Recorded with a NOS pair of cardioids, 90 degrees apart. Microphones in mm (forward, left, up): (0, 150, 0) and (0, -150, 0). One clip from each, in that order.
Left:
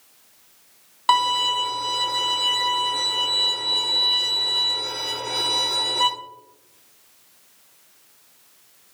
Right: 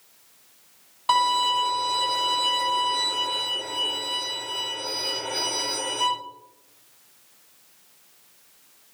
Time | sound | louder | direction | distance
1.1 | a violin | left 2 dB | 45° left | 1.7 m